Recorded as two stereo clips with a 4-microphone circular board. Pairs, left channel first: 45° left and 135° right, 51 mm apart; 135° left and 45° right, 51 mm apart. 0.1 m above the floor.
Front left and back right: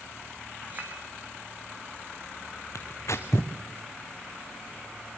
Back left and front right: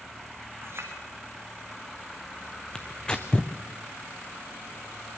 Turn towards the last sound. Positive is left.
turn(degrees=60)